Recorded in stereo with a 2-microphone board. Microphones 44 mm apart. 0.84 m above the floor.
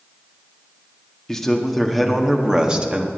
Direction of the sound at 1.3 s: 10° left (ahead or behind).